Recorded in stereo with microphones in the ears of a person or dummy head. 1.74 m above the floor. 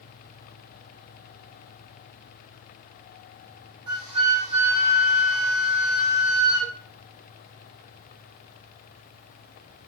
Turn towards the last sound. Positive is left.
turn(degrees=-30)  # may be behind; listen again after turning